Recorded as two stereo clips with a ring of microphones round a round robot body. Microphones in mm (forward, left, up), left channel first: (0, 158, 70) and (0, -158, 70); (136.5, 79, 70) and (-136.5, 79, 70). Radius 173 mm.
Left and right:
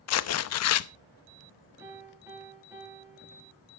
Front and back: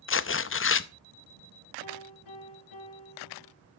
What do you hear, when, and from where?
0.1 s tearing paper: 45° left, 0.7 m
1.8 s a piano: 10° right, 9.5 m